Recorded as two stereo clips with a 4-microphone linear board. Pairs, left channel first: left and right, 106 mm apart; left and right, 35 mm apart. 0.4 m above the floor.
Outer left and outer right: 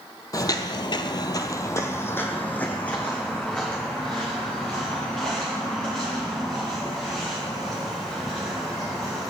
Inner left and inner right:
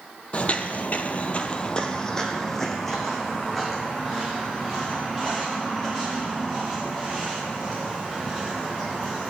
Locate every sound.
0.3 s footsteps: 35° left (ahead or behind), 0.6 m; by 9.3 s centre (ahead or behind), 5 m